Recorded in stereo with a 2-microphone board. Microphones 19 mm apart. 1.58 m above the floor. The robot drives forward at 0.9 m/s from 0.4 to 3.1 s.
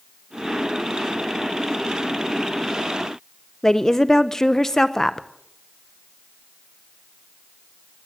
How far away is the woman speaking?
About 0.5 m.